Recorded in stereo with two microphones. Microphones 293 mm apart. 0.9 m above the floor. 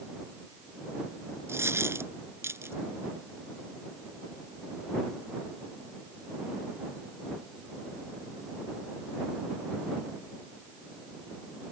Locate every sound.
1.5 s a dropped coin: 10° right (ahead or behind)